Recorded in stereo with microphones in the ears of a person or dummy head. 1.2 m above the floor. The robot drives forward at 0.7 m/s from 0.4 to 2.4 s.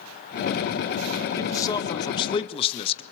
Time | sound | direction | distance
1.4 | a man speaking | 20° left (ahead or behind) | 1.9 m